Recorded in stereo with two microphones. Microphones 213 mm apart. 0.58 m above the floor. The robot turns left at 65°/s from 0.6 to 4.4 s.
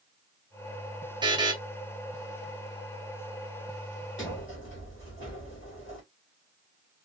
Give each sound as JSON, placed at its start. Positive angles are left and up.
{"t": 1.2, "sound": "a buzzer", "side_deg": -20, "distance_m": 0.7}
{"t": 4.2, "sound": "a sliding door", "side_deg": 65, "distance_m": 1.9}